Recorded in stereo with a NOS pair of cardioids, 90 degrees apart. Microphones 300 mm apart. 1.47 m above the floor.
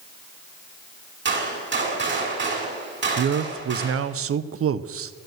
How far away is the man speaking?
About 0.8 m.